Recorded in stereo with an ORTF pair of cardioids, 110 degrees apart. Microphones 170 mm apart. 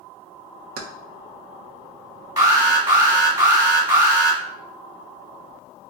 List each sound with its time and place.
0.8 s keys jangling: 65° right, 0.6 m
2.4 s an alarm: 20° right, 1.3 m